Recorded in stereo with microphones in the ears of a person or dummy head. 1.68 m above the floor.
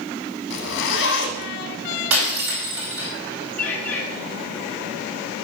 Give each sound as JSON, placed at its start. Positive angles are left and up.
{"t": 0.5, "sound": "a zipper", "side_deg": 60, "distance_m": 2.0}
{"t": 2.1, "sound": "breaking glass", "side_deg": -75, "distance_m": 5.0}
{"t": 3.6, "sound": "a bird", "side_deg": 10, "distance_m": 2.5}